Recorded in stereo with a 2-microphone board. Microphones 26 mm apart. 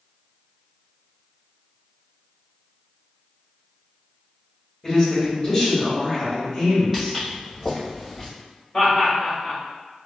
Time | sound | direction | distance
4.8 | a man speaking | 10° left (ahead or behind) | 1.8 m
6.9 | footsteps | 5° right (ahead or behind) | 1.8 m
8.7 | laughter | 15° left (ahead or behind) | 1.5 m